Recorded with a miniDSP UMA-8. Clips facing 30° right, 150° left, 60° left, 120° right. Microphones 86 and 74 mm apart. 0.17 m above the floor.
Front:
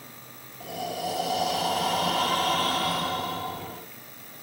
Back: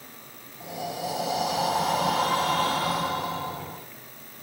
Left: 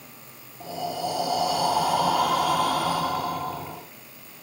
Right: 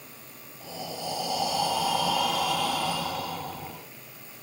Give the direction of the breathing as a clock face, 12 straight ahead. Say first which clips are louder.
Front 1 dB, left 7 dB; 9 o'clock.